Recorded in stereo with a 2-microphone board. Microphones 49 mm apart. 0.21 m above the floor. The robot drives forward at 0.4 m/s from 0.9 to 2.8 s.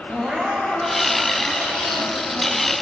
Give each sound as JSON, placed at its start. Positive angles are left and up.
{"t": 0.1, "sound": "crying", "side_deg": -20, "distance_m": 6.0}